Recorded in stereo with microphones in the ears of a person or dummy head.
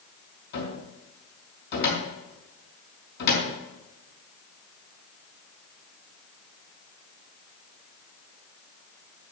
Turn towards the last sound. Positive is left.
turn(degrees=60)  # may be behind; listen again after turning